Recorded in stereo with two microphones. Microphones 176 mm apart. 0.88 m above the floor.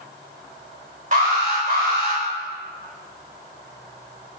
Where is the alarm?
45° right (ahead or behind), 4.5 m.